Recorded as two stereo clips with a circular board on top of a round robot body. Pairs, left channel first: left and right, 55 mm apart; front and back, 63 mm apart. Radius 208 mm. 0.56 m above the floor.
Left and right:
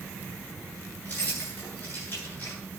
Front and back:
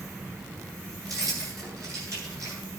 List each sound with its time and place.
1.1 s keys jangling: 145° left, 9 m